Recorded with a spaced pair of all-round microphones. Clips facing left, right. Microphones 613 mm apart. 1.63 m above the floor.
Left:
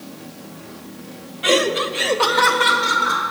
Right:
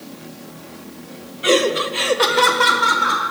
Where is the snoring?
No snoring in this recording.